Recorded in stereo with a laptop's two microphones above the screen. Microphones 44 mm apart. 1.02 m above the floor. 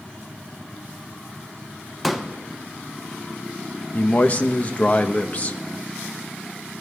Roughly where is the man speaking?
Left.